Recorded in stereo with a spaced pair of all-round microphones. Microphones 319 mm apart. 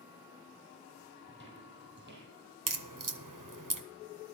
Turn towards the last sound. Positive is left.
turn(degrees=-75)  # may be behind; listen again after turning